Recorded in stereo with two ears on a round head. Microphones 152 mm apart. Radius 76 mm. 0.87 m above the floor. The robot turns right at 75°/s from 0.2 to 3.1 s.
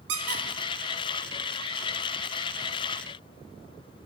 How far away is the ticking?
I don't hear ticking.